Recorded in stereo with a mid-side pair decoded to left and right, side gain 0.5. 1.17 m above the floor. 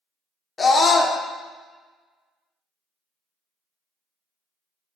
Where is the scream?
30° left, 0.7 m.